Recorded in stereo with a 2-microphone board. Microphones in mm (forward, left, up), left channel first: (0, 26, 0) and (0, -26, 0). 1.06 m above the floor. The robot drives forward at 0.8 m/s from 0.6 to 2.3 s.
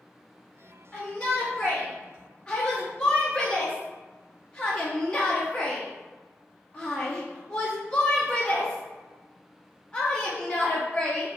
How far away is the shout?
About 1.5 m.